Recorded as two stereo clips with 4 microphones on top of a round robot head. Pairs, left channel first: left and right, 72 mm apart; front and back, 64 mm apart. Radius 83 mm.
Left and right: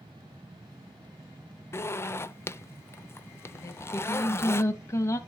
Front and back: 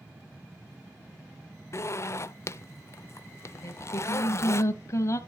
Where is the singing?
40° left, 0.9 m.